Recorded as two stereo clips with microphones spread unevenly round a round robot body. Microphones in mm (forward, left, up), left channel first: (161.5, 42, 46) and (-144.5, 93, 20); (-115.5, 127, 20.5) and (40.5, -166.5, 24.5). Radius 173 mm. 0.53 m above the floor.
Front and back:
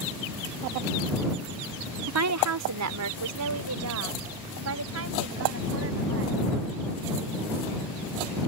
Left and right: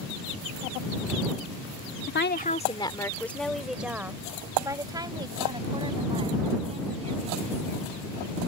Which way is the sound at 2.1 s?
165° left.